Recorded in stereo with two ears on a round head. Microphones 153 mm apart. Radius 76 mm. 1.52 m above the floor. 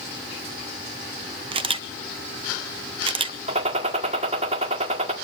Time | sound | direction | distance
1.5 | a camera shutter | 30° right (ahead or behind) | 0.9 m
3.5 | a gunshot | 40° right (ahead or behind) | 1.7 m